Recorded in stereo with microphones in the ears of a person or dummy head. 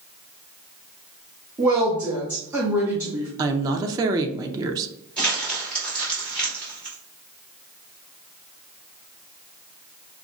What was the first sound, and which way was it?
A woman speaking, 15° right (ahead or behind).